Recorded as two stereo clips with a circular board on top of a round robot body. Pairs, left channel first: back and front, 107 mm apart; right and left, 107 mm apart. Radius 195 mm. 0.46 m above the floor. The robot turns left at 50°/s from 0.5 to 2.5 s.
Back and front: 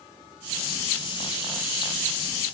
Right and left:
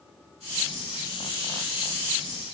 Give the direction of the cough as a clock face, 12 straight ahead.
No cough in this recording.